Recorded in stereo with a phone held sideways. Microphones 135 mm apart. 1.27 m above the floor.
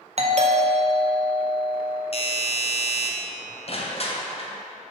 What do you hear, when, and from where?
0.2 s a doorbell: 50° right (ahead or behind), 0.6 m
2.1 s a doorbell: 45° left (ahead or behind), 0.7 m
3.7 s crushing: 50° left (ahead or behind), 0.7 m